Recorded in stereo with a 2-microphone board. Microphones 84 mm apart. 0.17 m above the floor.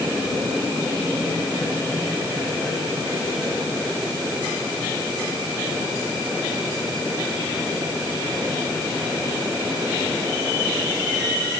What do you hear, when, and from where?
Only background noise.